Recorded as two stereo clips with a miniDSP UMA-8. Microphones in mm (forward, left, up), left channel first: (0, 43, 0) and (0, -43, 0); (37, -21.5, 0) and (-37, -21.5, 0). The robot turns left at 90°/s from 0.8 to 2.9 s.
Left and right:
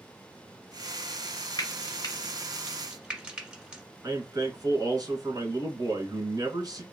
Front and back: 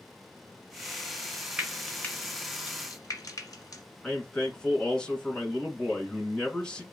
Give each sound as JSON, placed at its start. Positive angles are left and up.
{"t": 1.6, "sound": "frying", "azimuth_deg": 105, "distance_m": 1.5}
{"t": 4.0, "sound": "a man speaking", "azimuth_deg": -75, "distance_m": 1.9}